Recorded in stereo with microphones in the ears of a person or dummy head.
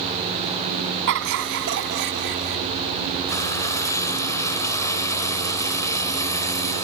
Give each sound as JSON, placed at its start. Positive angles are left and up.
{"t": 1.1, "sound": "laughter", "side_deg": -65}
{"t": 3.3, "sound": "frying", "side_deg": 15}